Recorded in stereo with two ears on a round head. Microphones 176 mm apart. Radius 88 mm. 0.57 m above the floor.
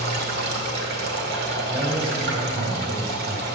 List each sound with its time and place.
0.0 s running water: 60° right (ahead or behind), 1.5 m
1.7 s a man speaking: 30° right (ahead or behind), 3.5 m